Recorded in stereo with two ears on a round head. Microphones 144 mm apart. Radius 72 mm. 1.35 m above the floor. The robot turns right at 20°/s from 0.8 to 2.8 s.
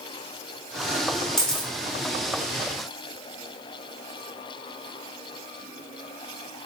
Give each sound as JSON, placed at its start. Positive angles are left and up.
{"t": 1.4, "sound": "a camera shutter", "side_deg": 5, "distance_m": 0.6}